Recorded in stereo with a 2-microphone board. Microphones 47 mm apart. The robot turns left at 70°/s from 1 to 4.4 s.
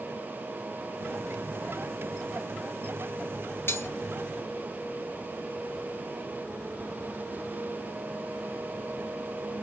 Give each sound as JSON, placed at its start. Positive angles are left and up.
{"t": 3.7, "sound": "cutlery clinking", "side_deg": 55, "distance_m": 1.4}